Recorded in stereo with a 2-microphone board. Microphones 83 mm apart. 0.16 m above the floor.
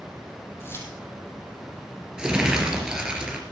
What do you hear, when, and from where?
0.6 s keys jangling: 30° left (ahead or behind), 4.5 m
2.2 s crumpling: 10° right (ahead or behind), 3.5 m